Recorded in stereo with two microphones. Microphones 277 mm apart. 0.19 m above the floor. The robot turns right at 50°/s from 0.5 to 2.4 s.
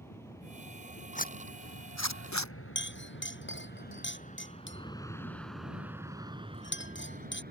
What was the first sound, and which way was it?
An aircraft, 10° left (ahead or behind).